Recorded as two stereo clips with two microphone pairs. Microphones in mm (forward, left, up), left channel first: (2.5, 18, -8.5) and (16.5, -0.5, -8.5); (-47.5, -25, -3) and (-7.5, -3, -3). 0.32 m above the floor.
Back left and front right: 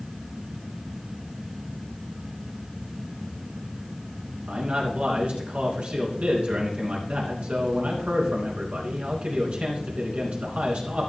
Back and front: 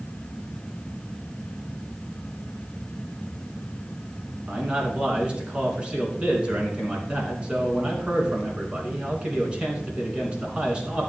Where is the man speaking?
35° right, 3 m.